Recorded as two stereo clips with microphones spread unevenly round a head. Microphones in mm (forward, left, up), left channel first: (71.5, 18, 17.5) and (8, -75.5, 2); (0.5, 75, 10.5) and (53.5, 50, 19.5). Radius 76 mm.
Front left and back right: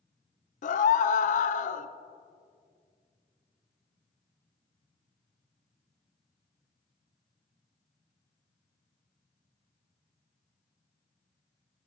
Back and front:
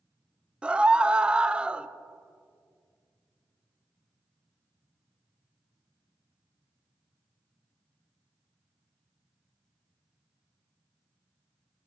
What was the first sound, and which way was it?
A scream, 50° left.